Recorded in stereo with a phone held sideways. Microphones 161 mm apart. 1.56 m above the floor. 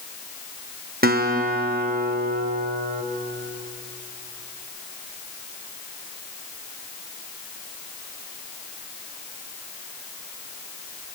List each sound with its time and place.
1.0 s a guitar: 80° right, 1.3 m